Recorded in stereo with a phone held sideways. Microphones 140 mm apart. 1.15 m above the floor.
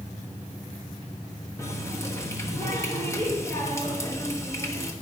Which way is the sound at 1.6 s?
20° left (ahead or behind).